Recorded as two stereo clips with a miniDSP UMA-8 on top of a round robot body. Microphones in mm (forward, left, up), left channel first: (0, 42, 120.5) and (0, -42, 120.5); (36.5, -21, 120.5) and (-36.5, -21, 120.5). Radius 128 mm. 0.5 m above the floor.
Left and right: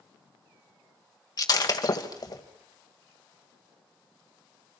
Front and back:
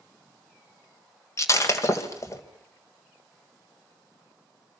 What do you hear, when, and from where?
1.4 s breaking glass: 50° left, 2 m